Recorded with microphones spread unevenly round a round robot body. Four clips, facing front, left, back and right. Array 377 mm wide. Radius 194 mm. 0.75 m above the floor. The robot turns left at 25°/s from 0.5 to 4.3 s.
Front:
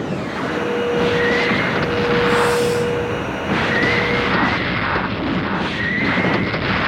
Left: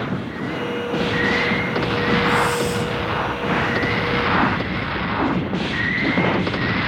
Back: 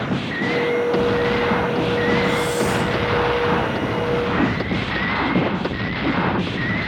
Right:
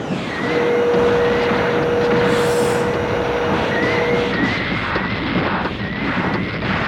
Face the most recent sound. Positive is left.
turn(degrees=125)